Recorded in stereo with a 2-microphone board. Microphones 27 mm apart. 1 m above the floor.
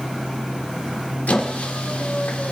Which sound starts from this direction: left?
A squeak, at 1.3 s.